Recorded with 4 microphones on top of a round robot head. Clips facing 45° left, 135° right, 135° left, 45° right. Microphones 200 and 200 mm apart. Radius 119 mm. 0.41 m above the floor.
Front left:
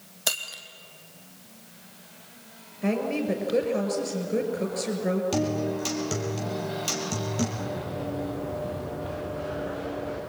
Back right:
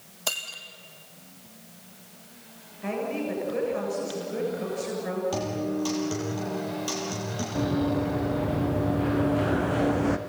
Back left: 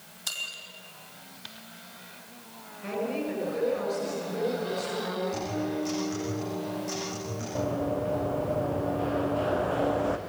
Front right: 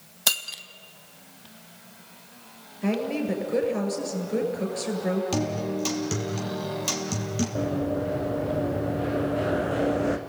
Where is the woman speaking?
5° right, 7.5 m.